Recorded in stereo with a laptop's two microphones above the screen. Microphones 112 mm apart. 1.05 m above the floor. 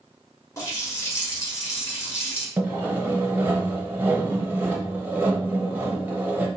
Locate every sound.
0.6 s a running tap: 25° left (ahead or behind), 1.4 m
2.6 s sawing: 15° right (ahead or behind), 0.8 m